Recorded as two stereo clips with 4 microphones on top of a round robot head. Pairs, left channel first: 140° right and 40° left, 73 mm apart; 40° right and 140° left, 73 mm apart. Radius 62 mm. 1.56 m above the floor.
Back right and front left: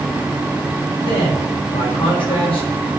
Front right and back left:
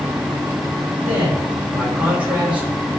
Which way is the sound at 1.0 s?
145° right.